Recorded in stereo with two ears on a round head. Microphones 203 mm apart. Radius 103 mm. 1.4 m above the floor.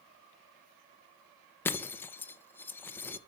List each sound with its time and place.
1.6 s breaking glass: 10° left (ahead or behind), 0.6 m